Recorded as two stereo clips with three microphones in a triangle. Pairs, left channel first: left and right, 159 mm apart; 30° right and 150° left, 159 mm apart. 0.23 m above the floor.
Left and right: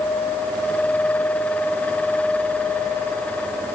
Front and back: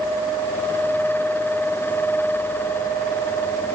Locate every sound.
Only background noise.